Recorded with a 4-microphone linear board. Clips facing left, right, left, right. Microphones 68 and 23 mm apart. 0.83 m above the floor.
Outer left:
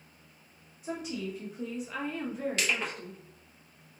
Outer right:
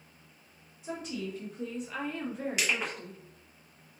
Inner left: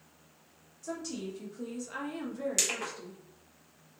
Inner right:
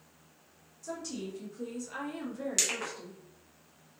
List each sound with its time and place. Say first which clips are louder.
0.8 s a woman speaking: outer left 1 dB, inner left 1 dB; 5° left (ahead or behind), 0.9 m; by 3.2 s centre (ahead or behind), 1.5 m
2.6 s crushing: outer right 1 dB, inner right 1 dB; 15° right (ahead or behind), 0.9 m